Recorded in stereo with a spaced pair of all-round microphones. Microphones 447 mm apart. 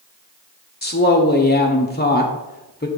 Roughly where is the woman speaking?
Left.